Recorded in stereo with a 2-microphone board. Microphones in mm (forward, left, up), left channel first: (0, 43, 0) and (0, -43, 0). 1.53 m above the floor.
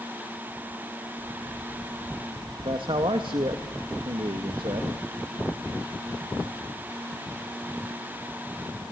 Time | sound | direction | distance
2.6 | a man speaking | 80° right | 2 m